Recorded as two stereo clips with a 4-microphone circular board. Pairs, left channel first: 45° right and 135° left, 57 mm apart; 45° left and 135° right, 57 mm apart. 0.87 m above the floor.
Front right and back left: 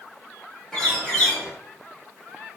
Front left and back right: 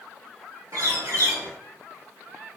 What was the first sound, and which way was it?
A bird, 125° right.